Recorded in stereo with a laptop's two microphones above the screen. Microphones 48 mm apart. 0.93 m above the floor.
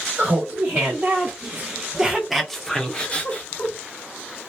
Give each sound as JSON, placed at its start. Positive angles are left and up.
{"t": 0.2, "sound": "laughter", "side_deg": -40, "distance_m": 1.4}